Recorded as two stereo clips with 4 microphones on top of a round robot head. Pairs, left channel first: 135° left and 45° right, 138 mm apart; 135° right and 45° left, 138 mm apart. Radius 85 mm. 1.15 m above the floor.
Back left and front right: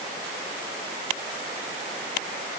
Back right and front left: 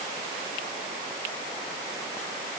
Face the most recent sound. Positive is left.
No sound to turn to.